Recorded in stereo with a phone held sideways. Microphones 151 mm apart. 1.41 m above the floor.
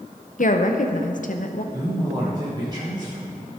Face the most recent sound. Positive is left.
turn(degrees=-25)  # may be behind; listen again after turning